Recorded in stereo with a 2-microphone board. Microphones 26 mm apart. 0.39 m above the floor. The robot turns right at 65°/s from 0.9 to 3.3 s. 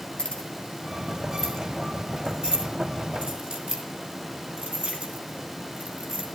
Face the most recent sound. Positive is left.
turn(degrees=-75)  # may be behind; listen again after turning